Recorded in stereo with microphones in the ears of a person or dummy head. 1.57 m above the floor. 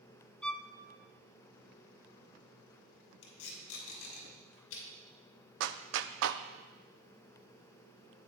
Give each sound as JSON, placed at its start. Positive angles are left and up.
{"t": 0.4, "sound": "a violin", "side_deg": 5, "distance_m": 0.5}
{"t": 3.2, "sound": "tape being pulled", "side_deg": 70, "distance_m": 6.5}
{"t": 5.6, "sound": "a clap", "side_deg": -70, "distance_m": 0.7}